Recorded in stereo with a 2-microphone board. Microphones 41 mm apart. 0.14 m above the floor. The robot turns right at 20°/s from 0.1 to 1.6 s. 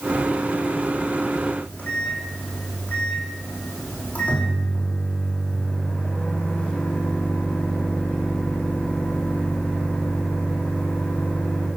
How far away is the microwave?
About 5.5 m.